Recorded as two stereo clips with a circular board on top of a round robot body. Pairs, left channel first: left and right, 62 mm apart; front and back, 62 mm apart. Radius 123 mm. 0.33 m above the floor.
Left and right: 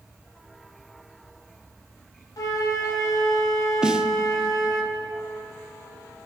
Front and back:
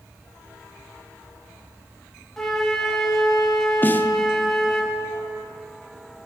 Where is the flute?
85° left, 1.5 m.